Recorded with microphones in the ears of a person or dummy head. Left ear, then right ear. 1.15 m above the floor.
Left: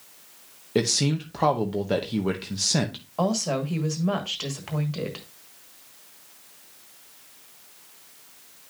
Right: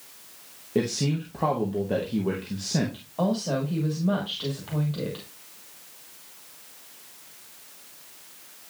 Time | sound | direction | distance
0.8 | a man speaking | 50° left (ahead or behind) | 0.8 m
3.2 | a woman speaking | 55° left (ahead or behind) | 1.4 m